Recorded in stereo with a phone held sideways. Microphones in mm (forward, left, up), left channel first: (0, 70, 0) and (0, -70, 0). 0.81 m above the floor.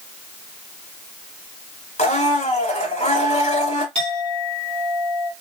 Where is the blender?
50° left (ahead or behind), 1.2 m.